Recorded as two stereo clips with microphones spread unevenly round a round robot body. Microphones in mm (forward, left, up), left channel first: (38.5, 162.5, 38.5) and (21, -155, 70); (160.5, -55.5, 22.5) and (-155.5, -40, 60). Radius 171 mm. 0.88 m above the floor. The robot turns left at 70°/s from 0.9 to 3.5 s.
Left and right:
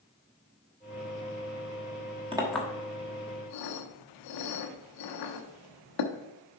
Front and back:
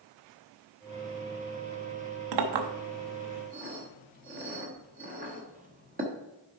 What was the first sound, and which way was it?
A clink, 170° right.